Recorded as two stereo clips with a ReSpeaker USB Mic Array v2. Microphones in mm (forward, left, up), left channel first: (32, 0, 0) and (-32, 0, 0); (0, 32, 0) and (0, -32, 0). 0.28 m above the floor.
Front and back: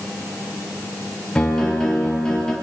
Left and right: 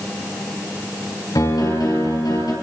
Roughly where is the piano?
Left.